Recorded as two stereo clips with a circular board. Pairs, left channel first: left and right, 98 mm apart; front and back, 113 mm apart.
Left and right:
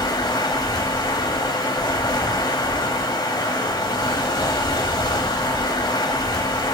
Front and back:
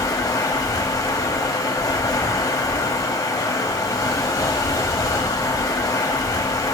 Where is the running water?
55° left, 2.5 m.